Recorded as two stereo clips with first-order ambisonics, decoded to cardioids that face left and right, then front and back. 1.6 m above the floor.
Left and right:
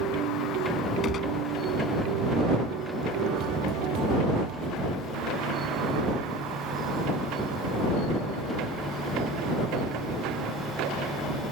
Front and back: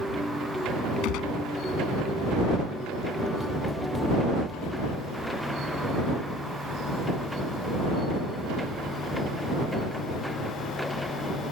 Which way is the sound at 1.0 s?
30° left.